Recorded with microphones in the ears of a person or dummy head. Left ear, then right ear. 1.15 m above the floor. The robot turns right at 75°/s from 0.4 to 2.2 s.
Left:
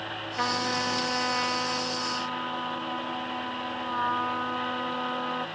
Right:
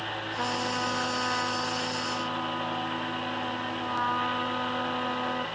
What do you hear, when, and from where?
0.4 s a trumpet: 30° left; by 5.5 s 165° left